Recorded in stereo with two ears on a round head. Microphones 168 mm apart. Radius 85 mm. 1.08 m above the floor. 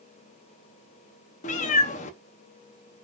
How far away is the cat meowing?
About 0.5 m.